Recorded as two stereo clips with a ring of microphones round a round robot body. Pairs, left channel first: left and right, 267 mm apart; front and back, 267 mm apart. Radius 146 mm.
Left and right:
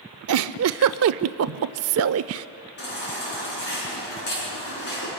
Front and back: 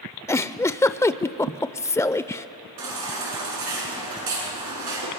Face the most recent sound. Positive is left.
turn(degrees=145)